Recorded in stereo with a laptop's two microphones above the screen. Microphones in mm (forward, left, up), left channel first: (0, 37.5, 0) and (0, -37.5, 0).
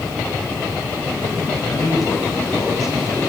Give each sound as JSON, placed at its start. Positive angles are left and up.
{"t": 1.6, "sound": "a man speaking", "side_deg": 50, "distance_m": 5.0}